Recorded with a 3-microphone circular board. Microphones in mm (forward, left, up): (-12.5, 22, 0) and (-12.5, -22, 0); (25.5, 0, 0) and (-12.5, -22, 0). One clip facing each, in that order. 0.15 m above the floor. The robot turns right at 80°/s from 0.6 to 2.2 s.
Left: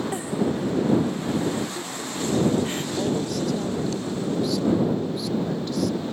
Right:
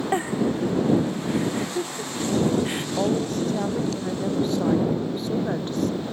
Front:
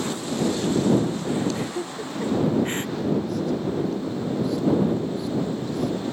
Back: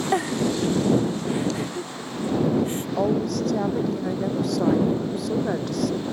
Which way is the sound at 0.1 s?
140° right.